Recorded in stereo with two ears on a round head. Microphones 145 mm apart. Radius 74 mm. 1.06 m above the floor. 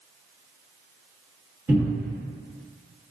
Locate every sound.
1.7 s a cupboard door: 10° right (ahead or behind), 1.3 m